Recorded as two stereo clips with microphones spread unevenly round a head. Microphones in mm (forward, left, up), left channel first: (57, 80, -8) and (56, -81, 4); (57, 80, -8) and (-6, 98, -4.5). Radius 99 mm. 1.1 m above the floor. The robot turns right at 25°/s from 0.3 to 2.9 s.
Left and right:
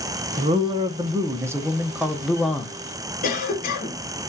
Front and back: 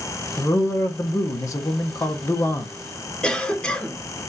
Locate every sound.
0.4 s a man speaking: 45° right, 0.9 m; by 2.7 s 15° left, 0.9 m
3.2 s a cough: 55° left, 3 m